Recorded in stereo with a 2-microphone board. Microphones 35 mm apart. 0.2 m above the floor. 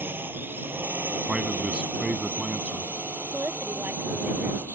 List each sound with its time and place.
0.0 s a drone: 75° right (ahead or behind)
1.3 s a man speaking: 30° right (ahead or behind)
3.3 s a woman speaking: 75° right (ahead or behind)